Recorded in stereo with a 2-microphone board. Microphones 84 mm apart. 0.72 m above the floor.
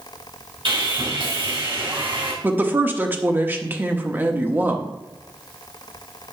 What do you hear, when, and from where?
0.7 s sawing: 75° right (ahead or behind), 2.5 m
2.4 s a woman speaking: 25° right (ahead or behind), 1.0 m